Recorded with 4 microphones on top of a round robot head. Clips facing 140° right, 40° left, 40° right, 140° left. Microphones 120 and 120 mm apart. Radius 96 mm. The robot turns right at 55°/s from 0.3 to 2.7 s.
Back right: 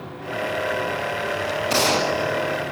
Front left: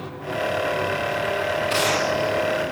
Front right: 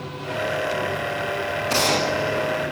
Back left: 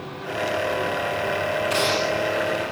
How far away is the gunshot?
About 0.7 m.